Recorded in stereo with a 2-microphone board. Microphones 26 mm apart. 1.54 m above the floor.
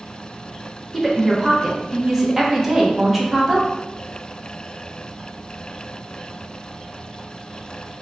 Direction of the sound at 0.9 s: 15° right (ahead or behind).